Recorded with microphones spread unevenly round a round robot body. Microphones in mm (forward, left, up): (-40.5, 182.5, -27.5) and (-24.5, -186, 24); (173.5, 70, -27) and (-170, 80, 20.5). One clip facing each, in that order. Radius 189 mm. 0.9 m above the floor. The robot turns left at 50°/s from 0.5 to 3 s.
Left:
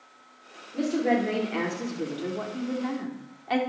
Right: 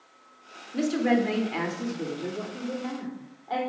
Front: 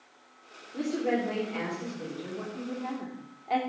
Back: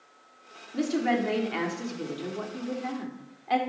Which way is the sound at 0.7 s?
125° right.